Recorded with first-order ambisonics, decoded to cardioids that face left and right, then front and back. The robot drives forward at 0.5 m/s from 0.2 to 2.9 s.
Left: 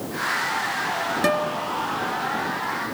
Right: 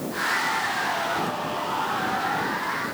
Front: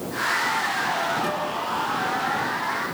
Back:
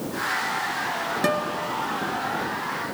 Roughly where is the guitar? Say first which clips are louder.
Left 5 dB, back 1 dB; behind left.